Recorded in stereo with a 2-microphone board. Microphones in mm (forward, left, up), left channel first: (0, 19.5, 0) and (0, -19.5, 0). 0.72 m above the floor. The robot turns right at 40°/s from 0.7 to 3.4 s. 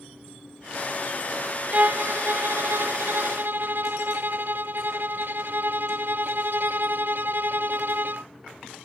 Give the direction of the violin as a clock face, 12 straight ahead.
5 o'clock.